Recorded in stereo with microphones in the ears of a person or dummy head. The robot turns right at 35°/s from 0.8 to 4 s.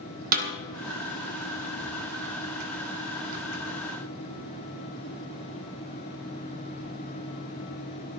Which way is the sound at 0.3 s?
40° right (ahead or behind).